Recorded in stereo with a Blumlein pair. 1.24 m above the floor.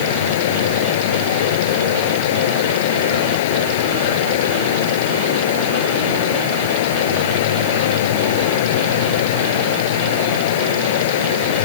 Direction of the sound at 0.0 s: 55° left.